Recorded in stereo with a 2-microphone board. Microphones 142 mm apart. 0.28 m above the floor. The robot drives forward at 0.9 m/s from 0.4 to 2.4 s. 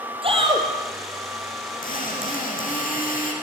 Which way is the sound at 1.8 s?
75° left (ahead or behind).